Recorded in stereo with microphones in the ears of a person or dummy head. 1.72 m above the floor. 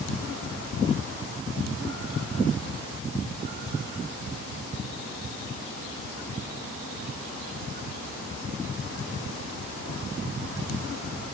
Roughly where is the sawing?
I don't hear sawing.